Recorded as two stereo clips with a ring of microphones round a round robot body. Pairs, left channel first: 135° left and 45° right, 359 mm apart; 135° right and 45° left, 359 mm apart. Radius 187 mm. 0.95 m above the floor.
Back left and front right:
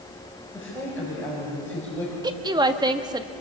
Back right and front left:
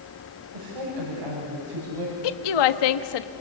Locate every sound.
0.5 s a woman speaking: 50° left, 6.5 m
2.2 s a woman speaking: 125° right, 1.4 m